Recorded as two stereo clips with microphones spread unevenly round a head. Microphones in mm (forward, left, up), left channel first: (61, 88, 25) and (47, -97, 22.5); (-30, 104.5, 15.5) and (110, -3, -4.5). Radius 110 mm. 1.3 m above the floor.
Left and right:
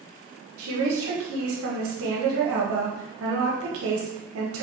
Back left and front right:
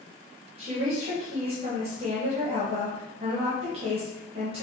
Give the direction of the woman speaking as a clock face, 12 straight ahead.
3 o'clock.